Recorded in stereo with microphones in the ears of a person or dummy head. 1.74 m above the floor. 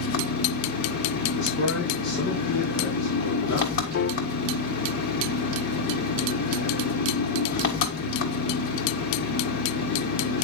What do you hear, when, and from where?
0.0 s an engine running: 55° left (ahead or behind), 2.5 m
1.4 s a man speaking: 75° left (ahead or behind), 4 m
3.9 s a piano: 55° left (ahead or behind), 1.6 m